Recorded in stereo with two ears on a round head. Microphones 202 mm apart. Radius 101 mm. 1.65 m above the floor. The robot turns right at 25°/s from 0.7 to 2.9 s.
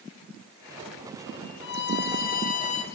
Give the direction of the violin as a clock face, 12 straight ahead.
8 o'clock.